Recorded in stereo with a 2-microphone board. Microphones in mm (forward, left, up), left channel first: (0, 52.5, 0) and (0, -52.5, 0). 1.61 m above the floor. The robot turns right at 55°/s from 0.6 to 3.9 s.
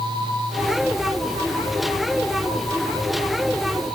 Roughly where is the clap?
I don't hear a clap.